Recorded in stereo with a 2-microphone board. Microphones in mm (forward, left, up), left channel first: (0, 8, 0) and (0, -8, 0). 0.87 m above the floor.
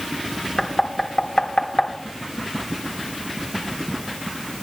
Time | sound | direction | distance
0.6 | knocking | 60° left (ahead or behind) | 1.6 m